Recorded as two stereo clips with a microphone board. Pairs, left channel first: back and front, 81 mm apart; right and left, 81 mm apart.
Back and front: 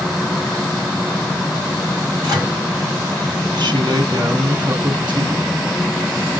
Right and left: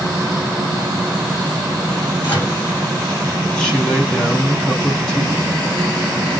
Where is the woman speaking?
15° right, 1.8 m.